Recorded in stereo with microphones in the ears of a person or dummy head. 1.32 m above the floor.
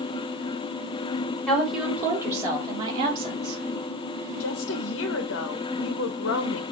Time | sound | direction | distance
1.5 | a woman speaking | 5° left (ahead or behind) | 1.6 m
4.4 | a woman speaking | 70° left (ahead or behind) | 0.8 m